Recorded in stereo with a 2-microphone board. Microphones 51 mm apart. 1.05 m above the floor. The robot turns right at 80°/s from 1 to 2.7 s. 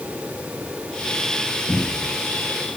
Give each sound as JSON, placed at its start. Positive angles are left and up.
{"t": 1.7, "sound": "a cupboard door", "azimuth_deg": 105, "distance_m": 8.5}